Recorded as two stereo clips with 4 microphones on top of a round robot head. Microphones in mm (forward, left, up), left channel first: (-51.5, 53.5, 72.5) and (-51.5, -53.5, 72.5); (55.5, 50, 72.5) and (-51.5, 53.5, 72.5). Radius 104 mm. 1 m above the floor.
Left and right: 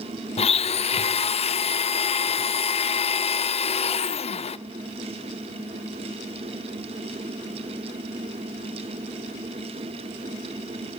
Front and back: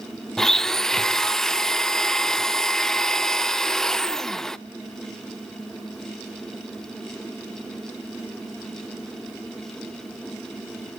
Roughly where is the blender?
Left.